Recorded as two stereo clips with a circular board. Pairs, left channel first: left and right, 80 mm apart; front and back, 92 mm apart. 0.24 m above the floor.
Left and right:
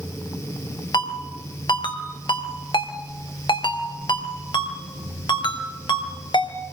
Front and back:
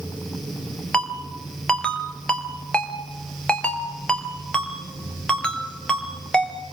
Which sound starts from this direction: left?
A ringtone, at 0.9 s.